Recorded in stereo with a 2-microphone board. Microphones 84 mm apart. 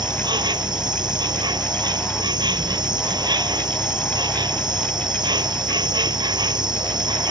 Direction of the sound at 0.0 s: 65° right (ahead or behind).